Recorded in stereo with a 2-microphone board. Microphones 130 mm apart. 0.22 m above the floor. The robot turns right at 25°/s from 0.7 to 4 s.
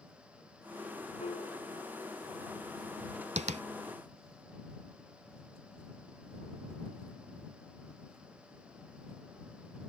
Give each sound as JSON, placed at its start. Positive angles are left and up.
{"t": 1.2, "sound": "a piano", "side_deg": 55}
{"t": 3.4, "sound": "tapping", "side_deg": -60}